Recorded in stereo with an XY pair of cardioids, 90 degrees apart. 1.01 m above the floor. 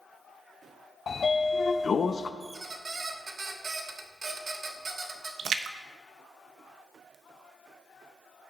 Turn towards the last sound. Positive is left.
turn(degrees=-65)